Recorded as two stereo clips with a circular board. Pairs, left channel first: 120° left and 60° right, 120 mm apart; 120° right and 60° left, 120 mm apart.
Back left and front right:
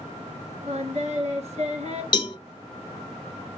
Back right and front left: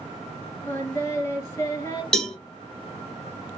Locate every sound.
0.7 s singing: 55° right, 1.2 m
2.1 s a cowbell: 155° left, 0.8 m